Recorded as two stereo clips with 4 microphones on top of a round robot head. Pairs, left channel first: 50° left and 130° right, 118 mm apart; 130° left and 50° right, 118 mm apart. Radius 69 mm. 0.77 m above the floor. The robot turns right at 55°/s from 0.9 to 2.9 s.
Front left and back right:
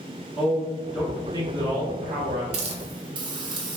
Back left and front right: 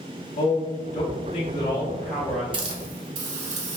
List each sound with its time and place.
0.4 s a man speaking: 150° left, 1.6 m; by 2.4 s 130° right, 1.6 m
2.5 s a hiss: 100° right, 1.0 m; by 3.8 s 80° right, 1.0 m